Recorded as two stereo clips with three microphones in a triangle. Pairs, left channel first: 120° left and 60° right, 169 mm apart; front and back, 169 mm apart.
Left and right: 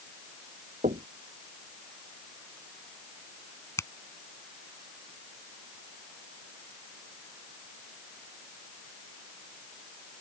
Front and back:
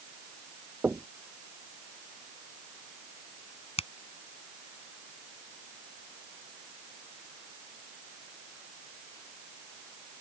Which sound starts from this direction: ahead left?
A finger snap, at 3.8 s.